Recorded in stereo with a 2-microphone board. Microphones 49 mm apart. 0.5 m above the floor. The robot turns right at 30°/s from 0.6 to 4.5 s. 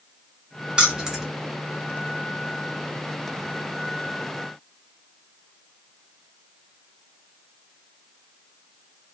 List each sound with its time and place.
0.8 s keys jangling: 20° right (ahead or behind), 0.9 m; by 1.3 s 10° right (ahead or behind), 0.9 m